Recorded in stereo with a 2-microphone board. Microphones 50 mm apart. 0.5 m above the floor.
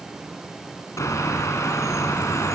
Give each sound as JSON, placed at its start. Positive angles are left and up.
{"t": 1.0, "sound": "a bird", "side_deg": 85, "distance_m": 1.9}